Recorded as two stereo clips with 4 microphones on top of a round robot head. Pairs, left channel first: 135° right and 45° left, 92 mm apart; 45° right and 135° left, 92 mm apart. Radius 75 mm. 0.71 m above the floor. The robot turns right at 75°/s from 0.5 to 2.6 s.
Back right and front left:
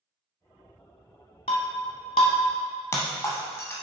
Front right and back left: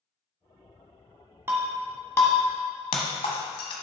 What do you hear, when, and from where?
1.5 s breaking glass: 160° right, 0.8 m; by 3.7 s 75° right, 0.8 m